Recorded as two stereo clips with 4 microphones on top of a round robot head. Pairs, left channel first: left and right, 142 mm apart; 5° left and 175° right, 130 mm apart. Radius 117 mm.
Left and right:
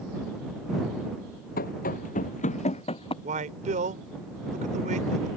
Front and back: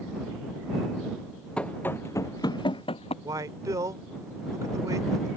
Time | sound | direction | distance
1.6 | running footsteps | 85° left | ?
3.2 | a man speaking | 110° right | ?